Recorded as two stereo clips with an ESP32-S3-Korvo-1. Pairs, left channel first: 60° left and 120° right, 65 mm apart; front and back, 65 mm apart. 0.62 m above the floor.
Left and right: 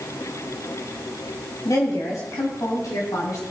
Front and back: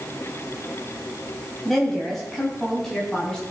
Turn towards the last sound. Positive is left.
turn(degrees=80)